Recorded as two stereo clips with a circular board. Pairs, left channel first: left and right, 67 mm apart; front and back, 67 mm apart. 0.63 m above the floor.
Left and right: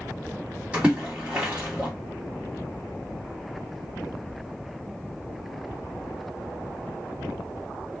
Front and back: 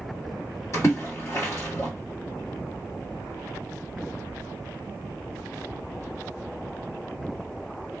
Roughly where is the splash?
Ahead right.